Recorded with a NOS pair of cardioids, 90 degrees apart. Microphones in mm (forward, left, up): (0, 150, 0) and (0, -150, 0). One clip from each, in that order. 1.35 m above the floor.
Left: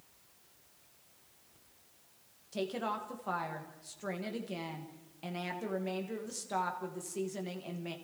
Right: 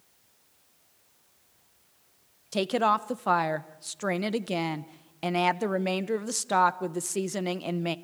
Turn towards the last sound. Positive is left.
turn(degrees=-70)